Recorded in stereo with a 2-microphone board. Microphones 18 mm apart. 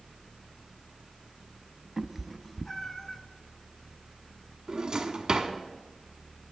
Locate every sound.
2.0 s a cat meowing: 20° right (ahead or behind), 0.5 m; by 3.2 s 25° left (ahead or behind), 0.8 m
4.7 s a drawer: 45° right (ahead or behind), 0.8 m